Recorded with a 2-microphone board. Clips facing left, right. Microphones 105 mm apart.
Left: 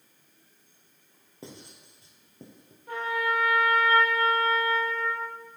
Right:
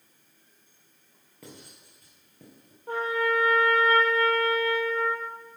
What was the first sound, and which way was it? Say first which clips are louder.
Writing: left 2 dB; 25° left (ahead or behind).